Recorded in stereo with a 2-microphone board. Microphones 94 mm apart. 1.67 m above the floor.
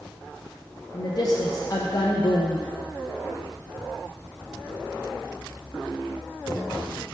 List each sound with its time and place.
0.9 s a woman speaking: 40° left (ahead or behind), 0.6 m